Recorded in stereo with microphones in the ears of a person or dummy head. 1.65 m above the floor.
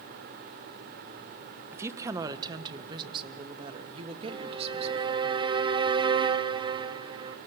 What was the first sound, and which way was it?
A woman speaking, 15° right (ahead or behind).